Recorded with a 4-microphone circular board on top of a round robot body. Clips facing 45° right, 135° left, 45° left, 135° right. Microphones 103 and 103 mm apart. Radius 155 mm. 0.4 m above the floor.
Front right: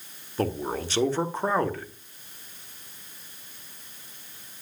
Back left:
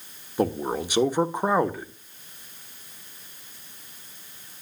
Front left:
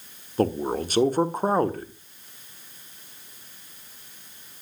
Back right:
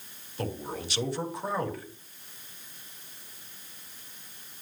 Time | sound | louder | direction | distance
0.4 | a man speaking | back left 3 dB, front left 11 dB | 60° left | 1.8 m